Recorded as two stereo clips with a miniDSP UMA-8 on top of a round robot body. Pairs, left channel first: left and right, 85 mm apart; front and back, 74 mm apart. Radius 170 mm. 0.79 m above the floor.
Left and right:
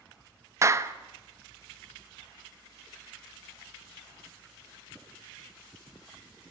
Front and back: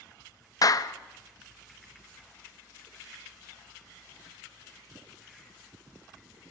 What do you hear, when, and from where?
0.6 s a clap: 35° right, 1.1 m